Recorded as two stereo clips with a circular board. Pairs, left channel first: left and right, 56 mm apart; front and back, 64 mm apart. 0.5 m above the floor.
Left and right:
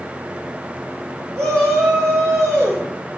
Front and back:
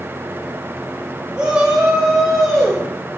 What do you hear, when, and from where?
1.4 s a shout: 105° right, 2.5 m; by 2.8 s 80° right, 2.5 m